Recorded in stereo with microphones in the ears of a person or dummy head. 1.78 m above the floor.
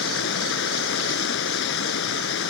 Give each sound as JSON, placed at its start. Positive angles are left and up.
{"t": 0.0, "sound": "running water", "side_deg": 70}